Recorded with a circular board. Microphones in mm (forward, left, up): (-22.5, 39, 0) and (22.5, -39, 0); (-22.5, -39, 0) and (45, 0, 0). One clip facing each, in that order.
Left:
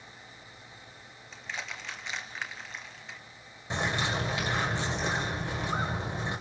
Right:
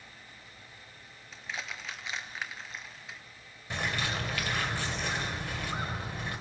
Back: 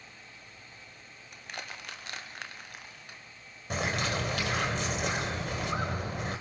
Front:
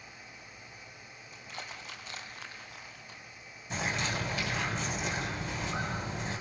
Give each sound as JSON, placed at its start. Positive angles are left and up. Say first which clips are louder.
{"t": 1.3, "sound": "crushing", "louder": "even, back 2 dB", "azimuth_deg": -145, "distance_m": 2.0}
{"t": 3.7, "sound": "a bird", "louder": "left 3 dB, back 2 dB", "azimuth_deg": -170, "distance_m": 3.5}